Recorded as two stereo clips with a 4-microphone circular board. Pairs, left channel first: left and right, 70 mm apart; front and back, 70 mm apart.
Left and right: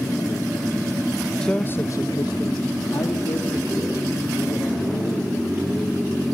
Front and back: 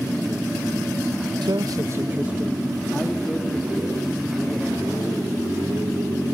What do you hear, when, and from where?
1.4 s a man speaking: 170° left, 1.1 m; by 5.1 s 65° left, 5 m